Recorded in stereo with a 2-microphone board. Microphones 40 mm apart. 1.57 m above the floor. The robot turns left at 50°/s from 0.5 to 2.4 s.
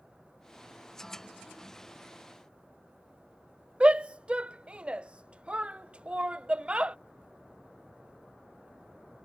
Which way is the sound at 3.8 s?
25° right (ahead or behind).